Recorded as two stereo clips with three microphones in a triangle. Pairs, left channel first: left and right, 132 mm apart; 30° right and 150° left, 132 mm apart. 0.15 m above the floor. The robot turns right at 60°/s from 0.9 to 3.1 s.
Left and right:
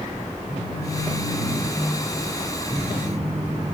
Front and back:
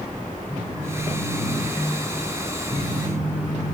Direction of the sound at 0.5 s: 55° left.